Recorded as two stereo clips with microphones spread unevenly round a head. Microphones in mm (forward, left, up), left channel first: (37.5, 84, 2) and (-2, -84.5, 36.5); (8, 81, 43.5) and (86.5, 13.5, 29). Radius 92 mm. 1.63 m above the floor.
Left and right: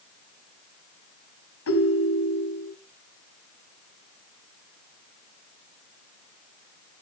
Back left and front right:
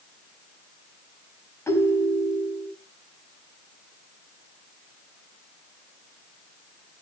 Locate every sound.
1.7 s a ringtone: 70° left, 4.5 m